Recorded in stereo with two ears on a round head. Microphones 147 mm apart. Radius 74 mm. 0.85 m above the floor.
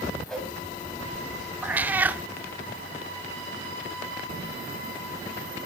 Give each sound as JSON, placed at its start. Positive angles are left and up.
{"t": 0.3, "sound": "a whoosh", "side_deg": 5, "distance_m": 7.0}
{"t": 1.6, "sound": "a cat meowing", "side_deg": -10, "distance_m": 0.6}